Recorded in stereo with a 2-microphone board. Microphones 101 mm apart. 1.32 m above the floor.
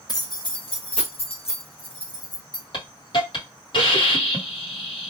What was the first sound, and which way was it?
Keys jangling, 35° left (ahead or behind).